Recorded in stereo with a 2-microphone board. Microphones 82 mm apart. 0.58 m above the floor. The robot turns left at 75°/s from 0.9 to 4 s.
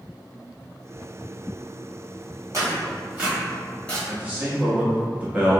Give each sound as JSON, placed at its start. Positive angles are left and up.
{"t": 2.5, "sound": "tearing paper", "side_deg": -45, "distance_m": 1.3}
{"t": 4.1, "sound": "a man speaking", "side_deg": -20, "distance_m": 0.6}